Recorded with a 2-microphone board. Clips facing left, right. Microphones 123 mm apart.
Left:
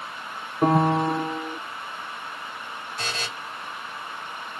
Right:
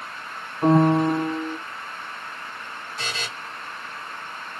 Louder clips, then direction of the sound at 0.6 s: Right 3 dB; 70° left (ahead or behind).